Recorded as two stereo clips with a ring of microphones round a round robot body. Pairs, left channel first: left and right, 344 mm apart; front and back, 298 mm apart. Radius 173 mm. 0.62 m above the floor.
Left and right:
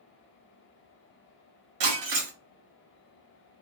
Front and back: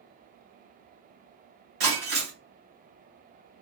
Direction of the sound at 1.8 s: 125° right.